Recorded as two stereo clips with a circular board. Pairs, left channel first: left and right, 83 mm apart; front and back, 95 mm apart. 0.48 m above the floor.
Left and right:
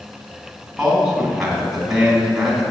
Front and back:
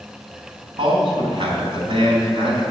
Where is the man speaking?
175° right, 3.5 m.